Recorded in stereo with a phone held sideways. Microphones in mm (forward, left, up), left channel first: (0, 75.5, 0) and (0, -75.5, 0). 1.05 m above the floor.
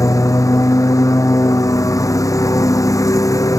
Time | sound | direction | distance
0.0 | a lawn mower | 20° left (ahead or behind) | ?